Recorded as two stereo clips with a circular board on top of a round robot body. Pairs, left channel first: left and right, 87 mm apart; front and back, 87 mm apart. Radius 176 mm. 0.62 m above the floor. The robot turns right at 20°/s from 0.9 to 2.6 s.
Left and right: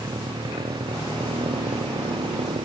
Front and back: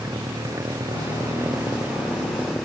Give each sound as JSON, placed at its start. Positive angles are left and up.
{"t": 0.0, "sound": "a motorcycle", "azimuth_deg": -125}